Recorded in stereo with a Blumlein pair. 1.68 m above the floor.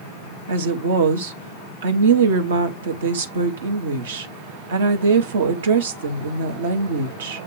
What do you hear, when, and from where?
0.5 s a woman speaking: 60° right, 1.3 m